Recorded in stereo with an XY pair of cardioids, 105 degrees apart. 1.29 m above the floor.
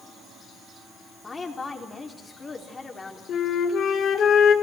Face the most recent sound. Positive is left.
turn(degrees=60)